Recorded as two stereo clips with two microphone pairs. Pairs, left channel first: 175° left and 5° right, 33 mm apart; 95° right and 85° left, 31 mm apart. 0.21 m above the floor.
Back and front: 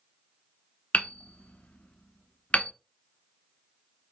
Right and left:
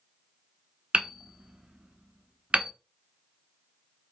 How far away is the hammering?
About 0.6 m.